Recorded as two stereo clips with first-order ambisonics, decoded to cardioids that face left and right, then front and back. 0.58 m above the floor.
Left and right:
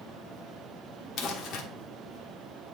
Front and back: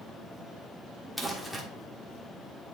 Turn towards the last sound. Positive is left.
turn(degrees=80)